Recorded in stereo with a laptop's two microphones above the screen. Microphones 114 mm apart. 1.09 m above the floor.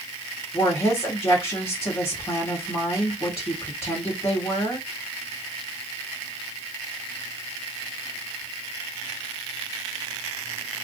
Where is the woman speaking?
50° left (ahead or behind), 1.3 m.